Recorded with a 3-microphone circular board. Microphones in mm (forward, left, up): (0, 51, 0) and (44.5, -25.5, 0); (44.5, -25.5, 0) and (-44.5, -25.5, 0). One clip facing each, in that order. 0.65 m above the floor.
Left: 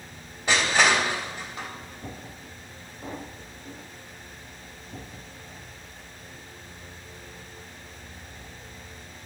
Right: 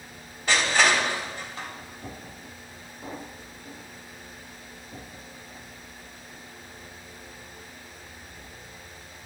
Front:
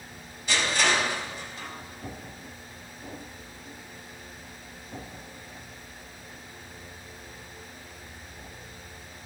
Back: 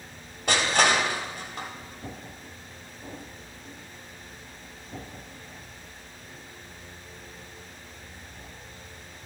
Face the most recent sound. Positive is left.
turn(degrees=-165)